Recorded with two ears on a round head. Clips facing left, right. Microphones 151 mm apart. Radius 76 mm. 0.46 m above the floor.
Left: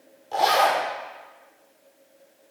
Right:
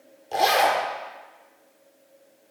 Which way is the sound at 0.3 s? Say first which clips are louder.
Even; 30° right (ahead or behind).